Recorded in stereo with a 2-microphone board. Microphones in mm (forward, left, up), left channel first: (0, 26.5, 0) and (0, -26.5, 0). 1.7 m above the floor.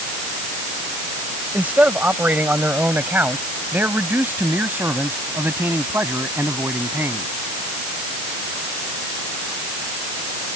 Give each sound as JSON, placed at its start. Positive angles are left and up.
{"t": 1.5, "sound": "a man speaking", "side_deg": -30}